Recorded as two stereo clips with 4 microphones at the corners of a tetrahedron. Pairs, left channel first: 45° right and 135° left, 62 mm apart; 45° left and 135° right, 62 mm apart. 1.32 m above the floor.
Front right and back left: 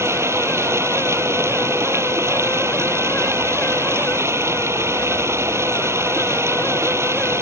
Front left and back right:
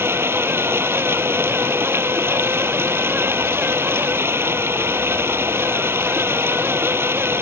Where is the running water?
175° left.